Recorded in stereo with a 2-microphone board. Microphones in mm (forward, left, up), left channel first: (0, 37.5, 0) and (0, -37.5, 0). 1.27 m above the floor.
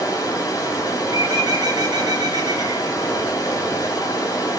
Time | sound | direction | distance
0.0 | running water | 50° left (ahead or behind) | 2.5 m
1.1 | a bird | 60° right (ahead or behind) | 1.7 m